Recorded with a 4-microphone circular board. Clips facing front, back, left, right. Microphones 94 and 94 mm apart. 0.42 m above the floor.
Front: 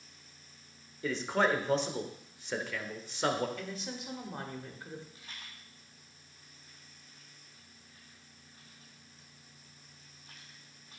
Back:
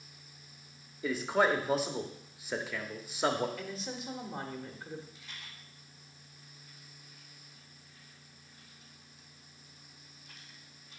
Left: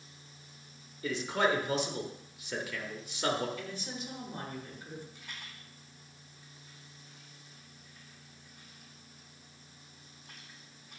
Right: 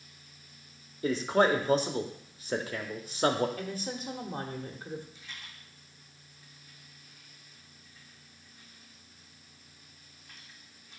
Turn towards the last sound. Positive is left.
turn(degrees=55)